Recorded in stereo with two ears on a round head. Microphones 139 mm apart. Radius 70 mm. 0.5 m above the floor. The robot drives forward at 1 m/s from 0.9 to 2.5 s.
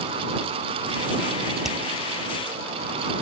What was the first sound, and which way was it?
Hammering, 5° right (ahead or behind).